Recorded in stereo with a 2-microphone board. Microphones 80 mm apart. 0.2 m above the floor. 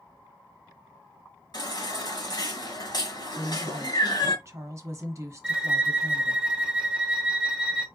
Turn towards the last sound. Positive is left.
turn(degrees=-10)  # may be behind; listen again after turning